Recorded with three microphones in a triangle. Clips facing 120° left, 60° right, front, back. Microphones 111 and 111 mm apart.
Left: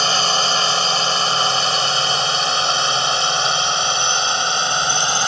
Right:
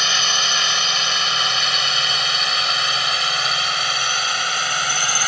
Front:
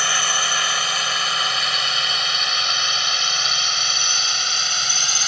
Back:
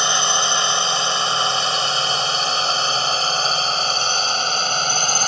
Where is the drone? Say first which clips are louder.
Left 5 dB, back 3 dB; 130° left; by 5.3 s 175° left.